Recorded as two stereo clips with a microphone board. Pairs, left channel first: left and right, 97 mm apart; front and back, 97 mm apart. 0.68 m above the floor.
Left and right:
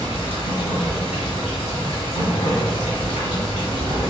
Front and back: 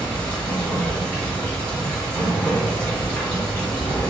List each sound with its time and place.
0.0 s running water: 70° left, 1.7 m